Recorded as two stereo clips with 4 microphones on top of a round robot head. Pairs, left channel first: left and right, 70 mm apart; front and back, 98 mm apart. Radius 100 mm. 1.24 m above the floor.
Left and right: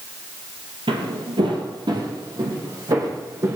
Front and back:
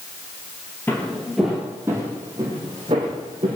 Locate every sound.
0.9 s footsteps: 75° right, 2.5 m; by 3.6 s 135° right, 4 m